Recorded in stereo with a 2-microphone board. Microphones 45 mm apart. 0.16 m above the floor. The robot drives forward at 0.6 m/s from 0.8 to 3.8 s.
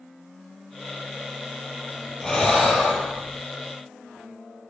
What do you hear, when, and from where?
2.2 s breathing: 15° left (ahead or behind), 0.8 m; by 3.4 s 5° left (ahead or behind), 1.5 m